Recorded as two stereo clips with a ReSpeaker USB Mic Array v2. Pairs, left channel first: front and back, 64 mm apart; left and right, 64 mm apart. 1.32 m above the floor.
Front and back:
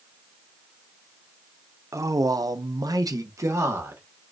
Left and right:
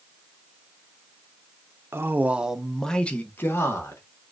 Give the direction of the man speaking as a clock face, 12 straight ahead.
5 o'clock.